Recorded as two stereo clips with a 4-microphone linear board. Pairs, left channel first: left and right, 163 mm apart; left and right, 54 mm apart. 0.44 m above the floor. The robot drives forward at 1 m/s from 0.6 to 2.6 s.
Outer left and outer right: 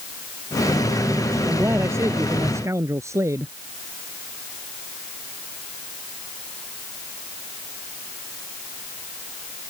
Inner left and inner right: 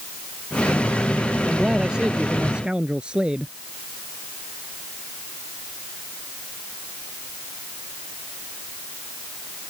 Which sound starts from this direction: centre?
A man speaking, at 1.5 s.